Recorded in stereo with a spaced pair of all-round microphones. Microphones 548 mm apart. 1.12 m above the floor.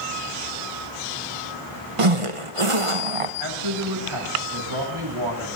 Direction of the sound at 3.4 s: 60° right (ahead or behind).